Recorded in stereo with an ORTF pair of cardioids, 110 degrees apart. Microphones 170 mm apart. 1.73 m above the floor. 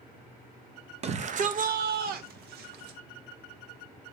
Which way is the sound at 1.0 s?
40° right.